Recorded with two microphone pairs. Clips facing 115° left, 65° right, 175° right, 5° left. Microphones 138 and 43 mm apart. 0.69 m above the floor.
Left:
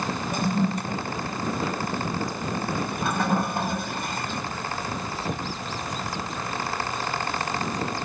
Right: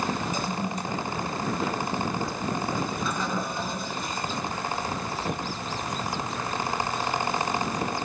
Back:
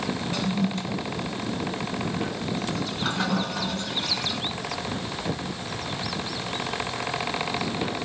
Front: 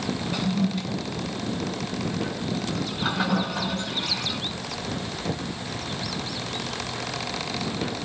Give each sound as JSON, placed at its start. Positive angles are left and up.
{"t": 0.3, "sound": "a toilet flushing", "azimuth_deg": 85, "distance_m": 2.0}